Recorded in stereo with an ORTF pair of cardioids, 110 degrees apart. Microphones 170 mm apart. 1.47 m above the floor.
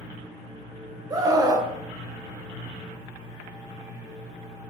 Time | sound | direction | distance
1.1 | a scream | 20° right | 0.7 m